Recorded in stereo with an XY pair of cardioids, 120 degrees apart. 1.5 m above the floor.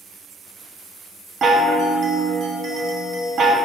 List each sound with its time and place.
1.4 s a chime: 40° right, 1.2 m